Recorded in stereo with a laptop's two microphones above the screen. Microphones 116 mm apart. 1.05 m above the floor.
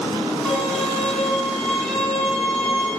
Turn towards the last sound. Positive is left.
turn(degrees=5)  # may be behind; listen again after turning